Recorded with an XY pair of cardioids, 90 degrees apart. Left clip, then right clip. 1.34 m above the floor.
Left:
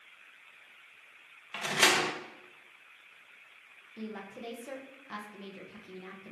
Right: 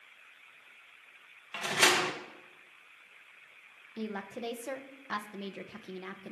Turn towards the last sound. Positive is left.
turn(degrees=-50)